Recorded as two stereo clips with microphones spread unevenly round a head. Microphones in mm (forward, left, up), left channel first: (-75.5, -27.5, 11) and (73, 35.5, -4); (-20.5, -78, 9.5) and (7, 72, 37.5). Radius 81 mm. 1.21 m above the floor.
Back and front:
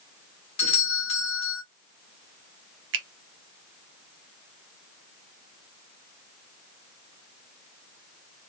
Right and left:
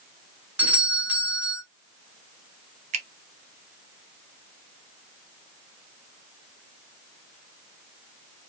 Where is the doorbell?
165° left, 1.2 m.